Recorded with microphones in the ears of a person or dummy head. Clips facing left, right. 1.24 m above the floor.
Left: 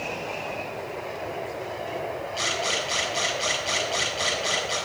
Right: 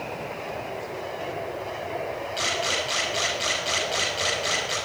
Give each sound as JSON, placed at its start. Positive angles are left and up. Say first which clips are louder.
{"t": 2.4, "sound": "a camera shutter", "louder": "even", "side_deg": -15, "distance_m": 6.5}